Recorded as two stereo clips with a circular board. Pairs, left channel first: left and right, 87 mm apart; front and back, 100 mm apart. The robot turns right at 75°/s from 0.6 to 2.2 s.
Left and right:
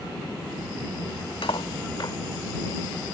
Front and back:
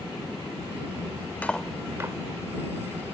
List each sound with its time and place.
1.4 s cutlery clinking: 75° left; by 2.2 s 130° left